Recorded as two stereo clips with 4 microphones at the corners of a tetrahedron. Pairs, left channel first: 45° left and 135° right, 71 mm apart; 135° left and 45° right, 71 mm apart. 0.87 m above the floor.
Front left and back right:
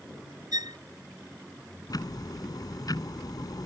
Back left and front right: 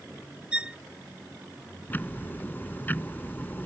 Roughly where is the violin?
Behind right.